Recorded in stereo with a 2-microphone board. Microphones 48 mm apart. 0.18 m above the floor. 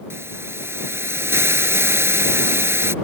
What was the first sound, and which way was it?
A hiss, 65° right (ahead or behind).